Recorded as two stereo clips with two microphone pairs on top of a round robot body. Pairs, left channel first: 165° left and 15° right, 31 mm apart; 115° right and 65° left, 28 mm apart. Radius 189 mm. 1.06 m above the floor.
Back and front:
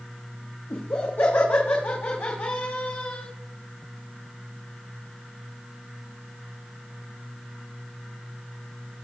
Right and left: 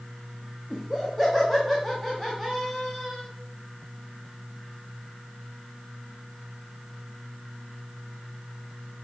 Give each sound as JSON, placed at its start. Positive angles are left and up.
{"t": 0.7, "sound": "laughter", "azimuth_deg": 165, "distance_m": 2.0}